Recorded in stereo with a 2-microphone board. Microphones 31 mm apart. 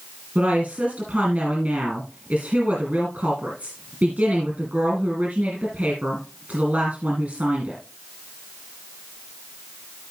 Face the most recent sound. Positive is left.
turn(degrees=-50)  # may be behind; listen again after turning